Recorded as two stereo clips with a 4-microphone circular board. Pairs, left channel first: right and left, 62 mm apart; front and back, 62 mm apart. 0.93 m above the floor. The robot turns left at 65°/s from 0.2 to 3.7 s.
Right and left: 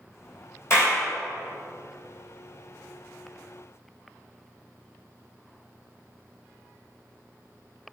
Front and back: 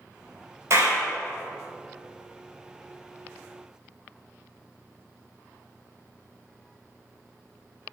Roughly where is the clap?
Behind right.